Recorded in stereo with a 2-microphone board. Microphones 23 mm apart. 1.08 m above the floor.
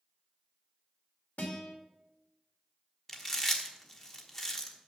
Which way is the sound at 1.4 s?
80° left.